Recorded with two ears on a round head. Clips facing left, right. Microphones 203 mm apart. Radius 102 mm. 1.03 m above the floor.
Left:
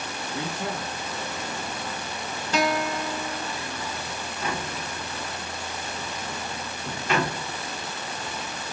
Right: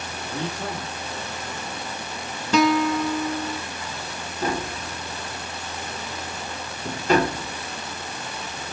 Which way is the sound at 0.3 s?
35° right (ahead or behind).